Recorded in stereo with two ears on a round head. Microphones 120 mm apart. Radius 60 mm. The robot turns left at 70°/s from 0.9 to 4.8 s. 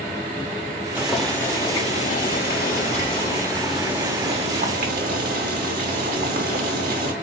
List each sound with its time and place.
0.9 s boiling: 165° right, 1.1 m; by 7.1 s 75° right, 1.1 m